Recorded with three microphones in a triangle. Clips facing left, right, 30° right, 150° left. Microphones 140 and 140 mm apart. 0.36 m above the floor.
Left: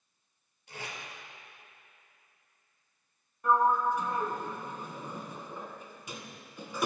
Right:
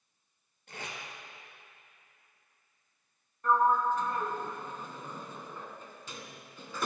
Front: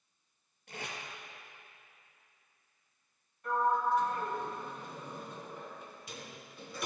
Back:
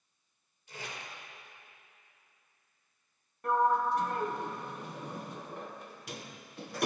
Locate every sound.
0.7 s tape being pulled: 55° right, 2.5 m
3.4 s a sliding door: 165° left, 0.9 m